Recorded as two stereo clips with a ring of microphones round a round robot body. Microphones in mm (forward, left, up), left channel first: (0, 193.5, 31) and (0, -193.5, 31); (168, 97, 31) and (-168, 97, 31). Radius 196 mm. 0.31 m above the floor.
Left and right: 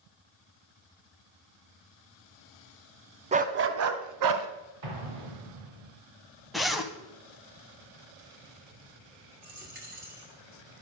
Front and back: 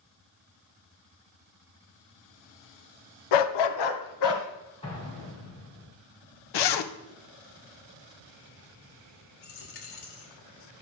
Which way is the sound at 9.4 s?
25° right.